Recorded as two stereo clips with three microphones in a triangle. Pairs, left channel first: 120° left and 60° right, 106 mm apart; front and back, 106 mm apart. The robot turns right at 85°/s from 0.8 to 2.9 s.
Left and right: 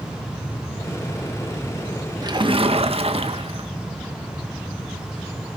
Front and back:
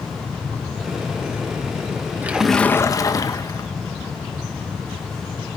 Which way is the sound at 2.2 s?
110° right.